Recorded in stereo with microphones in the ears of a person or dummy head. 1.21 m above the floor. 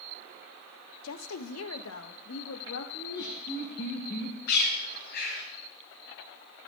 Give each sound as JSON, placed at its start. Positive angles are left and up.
{"t": 1.0, "sound": "a woman speaking", "side_deg": 80, "distance_m": 0.7}
{"t": 2.9, "sound": "laughter", "side_deg": 65, "distance_m": 3.5}
{"t": 4.5, "sound": "a bird", "side_deg": 55, "distance_m": 6.5}